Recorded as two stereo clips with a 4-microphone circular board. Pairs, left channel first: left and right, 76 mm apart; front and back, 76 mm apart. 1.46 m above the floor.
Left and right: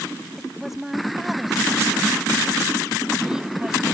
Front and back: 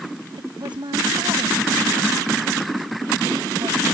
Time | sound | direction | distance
0.4 | a woman speaking | straight behind | ?